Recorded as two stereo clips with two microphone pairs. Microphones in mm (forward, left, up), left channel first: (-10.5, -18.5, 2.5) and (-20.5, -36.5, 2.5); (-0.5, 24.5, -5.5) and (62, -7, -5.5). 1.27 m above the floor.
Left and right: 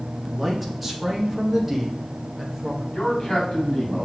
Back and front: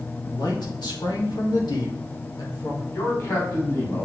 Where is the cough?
No cough in this recording.